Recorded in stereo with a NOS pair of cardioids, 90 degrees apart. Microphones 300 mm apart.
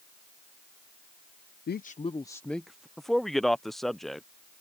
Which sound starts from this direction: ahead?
A man speaking, at 3.0 s.